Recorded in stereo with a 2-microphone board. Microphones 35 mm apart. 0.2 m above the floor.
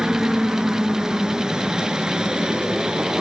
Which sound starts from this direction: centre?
A helicopter, at 0.0 s.